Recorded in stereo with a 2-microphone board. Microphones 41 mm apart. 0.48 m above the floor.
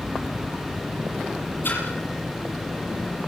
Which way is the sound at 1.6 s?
50° left (ahead or behind).